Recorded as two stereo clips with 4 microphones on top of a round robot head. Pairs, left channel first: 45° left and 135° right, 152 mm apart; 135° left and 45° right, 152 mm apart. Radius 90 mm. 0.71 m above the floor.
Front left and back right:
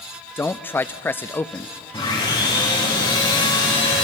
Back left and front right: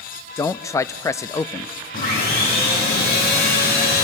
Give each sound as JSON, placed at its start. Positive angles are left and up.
{"t": 0.4, "sound": "a man speaking", "azimuth_deg": 100, "distance_m": 0.5}
{"t": 1.9, "sound": "sawing", "azimuth_deg": 110, "distance_m": 6.5}